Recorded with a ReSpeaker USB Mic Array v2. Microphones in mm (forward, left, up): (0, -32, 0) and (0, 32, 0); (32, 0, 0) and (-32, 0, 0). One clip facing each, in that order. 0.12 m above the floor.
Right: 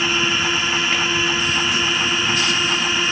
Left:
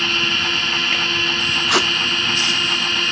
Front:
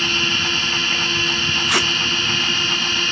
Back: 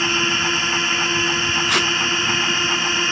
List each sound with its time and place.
0.0 s a drone: 150° right
1.7 s tape being pulled: 85° left